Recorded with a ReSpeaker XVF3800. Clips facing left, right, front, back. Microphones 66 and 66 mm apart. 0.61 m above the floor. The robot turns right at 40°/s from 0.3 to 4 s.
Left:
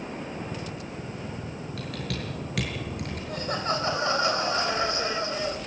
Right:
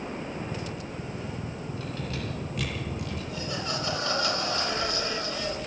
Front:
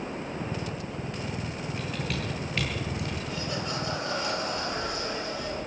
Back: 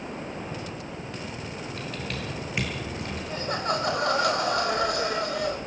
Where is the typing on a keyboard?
75° left, 8.5 m; by 3.2 s 130° left, 8.5 m.